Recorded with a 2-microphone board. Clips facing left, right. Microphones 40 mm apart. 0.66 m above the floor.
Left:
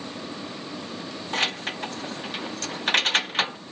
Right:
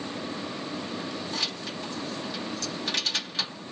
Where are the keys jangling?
50° left (ahead or behind), 0.5 m.